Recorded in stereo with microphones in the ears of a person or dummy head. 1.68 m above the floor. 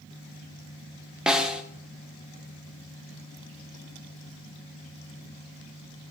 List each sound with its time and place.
1.3 s a snare drum: 5° right (ahead or behind), 1.0 m